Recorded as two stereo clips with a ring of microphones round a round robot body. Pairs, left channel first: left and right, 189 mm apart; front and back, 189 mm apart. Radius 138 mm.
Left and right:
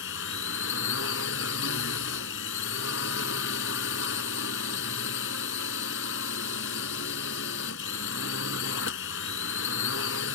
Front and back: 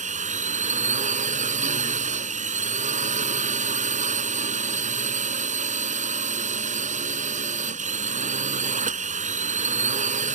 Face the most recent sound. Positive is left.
turn(degrees=130)